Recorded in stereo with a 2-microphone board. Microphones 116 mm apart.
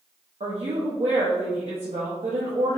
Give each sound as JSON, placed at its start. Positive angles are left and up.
{"t": 0.4, "sound": "a woman speaking", "side_deg": -65, "distance_m": 0.5}